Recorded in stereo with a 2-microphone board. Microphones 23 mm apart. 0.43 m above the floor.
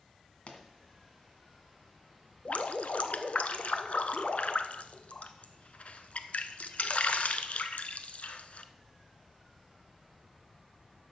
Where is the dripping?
75° left (ahead or behind), 0.8 m.